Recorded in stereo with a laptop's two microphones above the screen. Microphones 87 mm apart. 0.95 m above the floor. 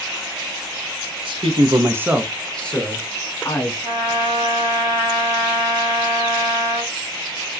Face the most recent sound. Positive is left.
turn(degrees=-30)  # may be behind; listen again after turning